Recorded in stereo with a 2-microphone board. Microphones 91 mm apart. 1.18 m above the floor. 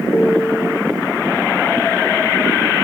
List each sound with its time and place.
0.1 s a piano: 25° left (ahead or behind), 1.3 m